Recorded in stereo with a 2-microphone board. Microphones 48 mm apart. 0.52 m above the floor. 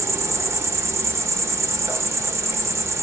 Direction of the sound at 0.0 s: 70° right (ahead or behind).